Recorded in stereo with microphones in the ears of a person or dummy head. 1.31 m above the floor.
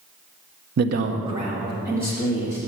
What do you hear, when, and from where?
0.8 s a man speaking: 60° right (ahead or behind), 0.6 m; by 2.6 s 15° right (ahead or behind), 2.5 m